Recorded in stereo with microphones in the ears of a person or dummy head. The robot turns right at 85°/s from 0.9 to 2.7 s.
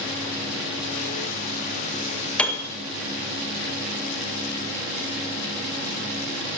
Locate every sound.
2.4 s a piano: 10° left (ahead or behind), 1.9 m; by 2.7 s 35° left (ahead or behind), 1.9 m